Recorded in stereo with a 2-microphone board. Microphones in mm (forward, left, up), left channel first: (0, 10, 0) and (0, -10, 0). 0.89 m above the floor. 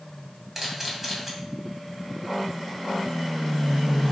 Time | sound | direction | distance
0.6 | a camera shutter | 10° right (ahead or behind) | 1.8 m